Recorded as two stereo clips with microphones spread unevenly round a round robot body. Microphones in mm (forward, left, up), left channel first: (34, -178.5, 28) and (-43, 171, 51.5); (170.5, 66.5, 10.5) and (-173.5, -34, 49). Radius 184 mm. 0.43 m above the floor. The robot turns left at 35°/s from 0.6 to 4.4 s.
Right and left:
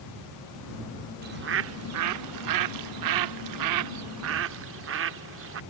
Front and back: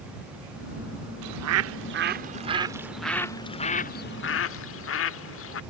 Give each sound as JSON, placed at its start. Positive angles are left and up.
{"t": 1.2, "sound": "a bird", "azimuth_deg": 165}